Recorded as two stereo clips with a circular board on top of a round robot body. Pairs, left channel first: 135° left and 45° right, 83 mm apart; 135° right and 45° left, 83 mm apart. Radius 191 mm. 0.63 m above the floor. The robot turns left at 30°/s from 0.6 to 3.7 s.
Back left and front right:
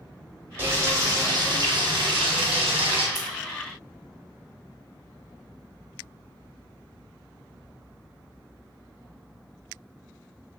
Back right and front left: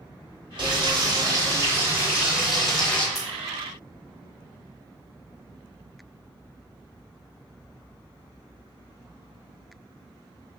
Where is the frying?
20° left, 0.9 m; by 3.0 s 55° right, 0.9 m.